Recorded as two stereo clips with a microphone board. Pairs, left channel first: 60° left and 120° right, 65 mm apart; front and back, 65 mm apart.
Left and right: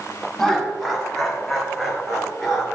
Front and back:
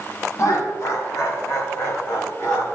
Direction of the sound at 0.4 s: 25° right.